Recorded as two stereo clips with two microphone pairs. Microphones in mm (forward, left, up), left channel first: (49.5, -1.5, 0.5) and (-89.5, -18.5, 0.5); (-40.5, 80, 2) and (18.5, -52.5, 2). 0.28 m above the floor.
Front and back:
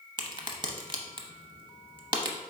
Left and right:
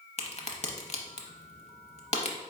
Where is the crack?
140° left, 0.6 m.